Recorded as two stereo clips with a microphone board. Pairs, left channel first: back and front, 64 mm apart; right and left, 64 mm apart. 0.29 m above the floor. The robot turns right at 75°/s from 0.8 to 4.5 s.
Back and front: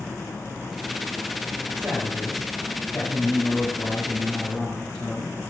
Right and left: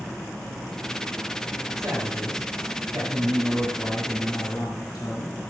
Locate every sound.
1.8 s a man speaking: 45° left, 5 m; by 5.3 s 110° right, 5 m